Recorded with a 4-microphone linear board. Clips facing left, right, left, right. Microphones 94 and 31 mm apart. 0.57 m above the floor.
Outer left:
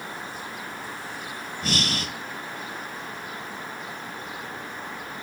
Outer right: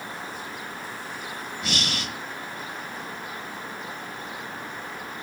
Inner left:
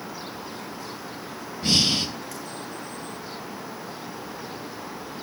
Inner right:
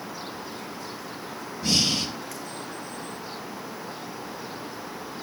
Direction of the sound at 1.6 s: 45° left (ahead or behind).